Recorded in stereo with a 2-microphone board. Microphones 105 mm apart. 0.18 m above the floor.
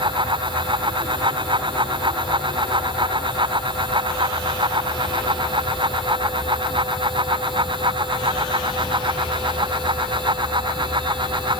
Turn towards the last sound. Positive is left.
No sound to turn to.